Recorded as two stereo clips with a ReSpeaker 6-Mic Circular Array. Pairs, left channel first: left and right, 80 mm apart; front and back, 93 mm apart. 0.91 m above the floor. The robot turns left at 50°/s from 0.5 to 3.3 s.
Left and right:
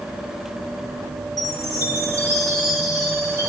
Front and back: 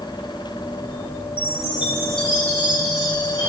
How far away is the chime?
About 4 m.